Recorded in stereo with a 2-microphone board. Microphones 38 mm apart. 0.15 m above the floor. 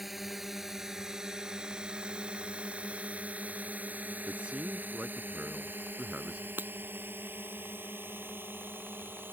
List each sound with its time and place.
0.0 s a drone: 5° right (ahead or behind); by 9.3 s 65° right (ahead or behind)
4.3 s a man speaking: 25° right (ahead or behind)
6.6 s breaking glass: 60° right (ahead or behind)